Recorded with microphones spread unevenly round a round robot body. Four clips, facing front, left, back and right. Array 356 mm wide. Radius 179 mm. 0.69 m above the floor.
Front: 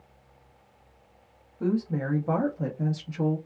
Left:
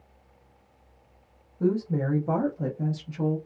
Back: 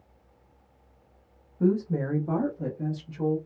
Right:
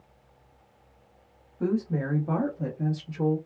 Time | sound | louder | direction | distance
1.6 | a woman speaking | left 2 dB, back 2 dB | straight behind | 0.9 m